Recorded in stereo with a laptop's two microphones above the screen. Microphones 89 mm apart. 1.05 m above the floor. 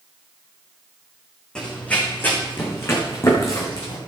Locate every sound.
1.6 s running footsteps: 10° left (ahead or behind), 3.5 m; by 4.0 s 40° left (ahead or behind), 4.5 m